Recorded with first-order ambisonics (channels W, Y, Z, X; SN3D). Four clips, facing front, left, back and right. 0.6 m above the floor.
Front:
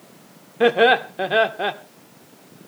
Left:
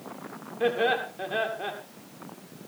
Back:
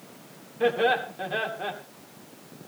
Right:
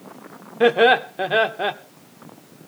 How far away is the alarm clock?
I don't hear an alarm clock.